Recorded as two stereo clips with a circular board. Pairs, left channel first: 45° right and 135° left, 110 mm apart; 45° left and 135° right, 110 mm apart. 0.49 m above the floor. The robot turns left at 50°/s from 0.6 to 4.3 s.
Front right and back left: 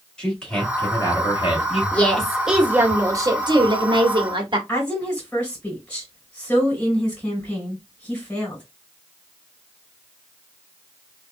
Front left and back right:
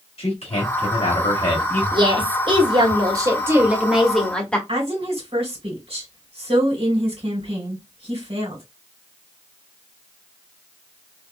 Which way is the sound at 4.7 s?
120° right.